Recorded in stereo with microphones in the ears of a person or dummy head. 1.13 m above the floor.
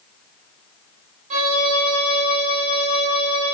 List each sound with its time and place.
1.3 s a violin: 35° right (ahead or behind), 1.1 m